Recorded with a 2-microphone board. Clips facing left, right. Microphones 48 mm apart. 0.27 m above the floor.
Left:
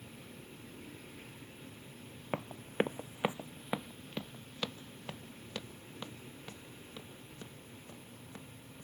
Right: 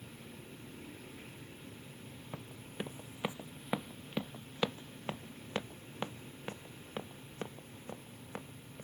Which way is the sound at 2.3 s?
70° left (ahead or behind).